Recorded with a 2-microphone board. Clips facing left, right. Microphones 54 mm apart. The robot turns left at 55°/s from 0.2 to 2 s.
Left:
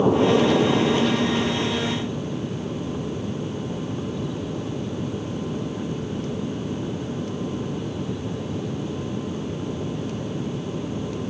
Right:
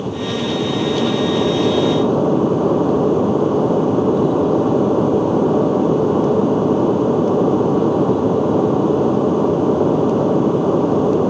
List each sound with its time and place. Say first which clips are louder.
0.0 s an aircraft: left 4 dB; 20° left; by 11.3 s 75° right